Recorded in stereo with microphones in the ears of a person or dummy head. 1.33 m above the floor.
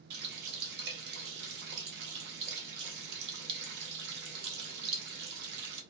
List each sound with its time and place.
0.1 s a running tap: 60° right (ahead or behind), 0.7 m